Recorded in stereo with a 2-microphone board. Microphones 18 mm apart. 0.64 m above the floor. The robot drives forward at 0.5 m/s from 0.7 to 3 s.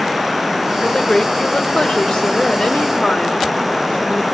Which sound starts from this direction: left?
A woman speaking, at 0.8 s.